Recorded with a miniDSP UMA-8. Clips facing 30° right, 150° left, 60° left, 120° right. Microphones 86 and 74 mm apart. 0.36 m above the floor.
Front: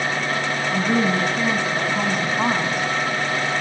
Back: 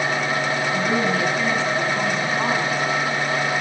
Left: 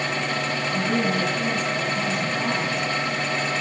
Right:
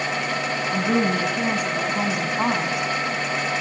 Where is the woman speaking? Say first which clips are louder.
Front 3 dB, right 3 dB; 100° right, 3.5 m.